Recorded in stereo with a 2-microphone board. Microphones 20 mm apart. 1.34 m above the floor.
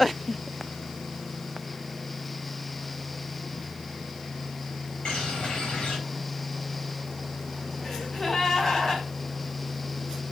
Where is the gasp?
20° left (ahead or behind), 3 m.